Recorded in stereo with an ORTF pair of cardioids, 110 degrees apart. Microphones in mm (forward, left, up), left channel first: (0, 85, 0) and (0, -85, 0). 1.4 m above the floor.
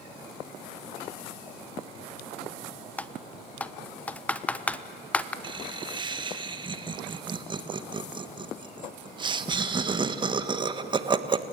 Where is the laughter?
25° right, 1.6 m.